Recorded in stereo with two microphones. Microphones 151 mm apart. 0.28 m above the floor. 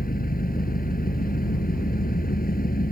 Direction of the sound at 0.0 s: 75° left (ahead or behind).